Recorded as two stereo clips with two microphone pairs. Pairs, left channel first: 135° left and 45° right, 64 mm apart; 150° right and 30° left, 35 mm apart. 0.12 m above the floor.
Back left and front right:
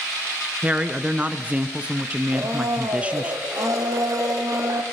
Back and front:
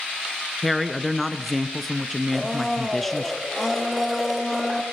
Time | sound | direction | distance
0.6 | a woman speaking | 65° right | 1.4 m
2.3 | a blender | 60° right | 3.5 m